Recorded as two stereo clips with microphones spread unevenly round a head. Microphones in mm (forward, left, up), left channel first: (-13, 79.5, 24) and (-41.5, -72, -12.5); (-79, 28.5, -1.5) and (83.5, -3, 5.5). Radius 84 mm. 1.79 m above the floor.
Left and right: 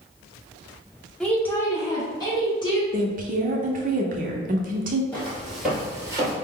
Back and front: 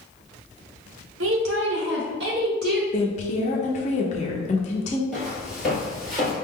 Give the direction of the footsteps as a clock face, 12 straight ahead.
10 o'clock.